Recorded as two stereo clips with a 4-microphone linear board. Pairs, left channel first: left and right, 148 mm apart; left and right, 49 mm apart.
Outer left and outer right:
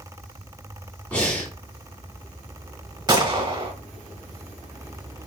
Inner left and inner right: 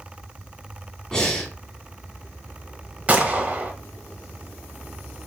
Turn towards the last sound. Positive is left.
turn(degrees=-30)  # may be behind; listen again after turning